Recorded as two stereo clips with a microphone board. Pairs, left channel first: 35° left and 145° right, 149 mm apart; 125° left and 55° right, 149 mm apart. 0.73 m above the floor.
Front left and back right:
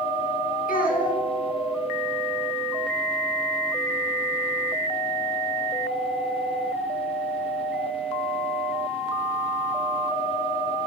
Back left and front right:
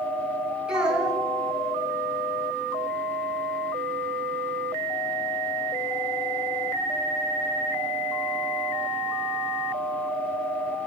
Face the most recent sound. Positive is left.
turn(degrees=25)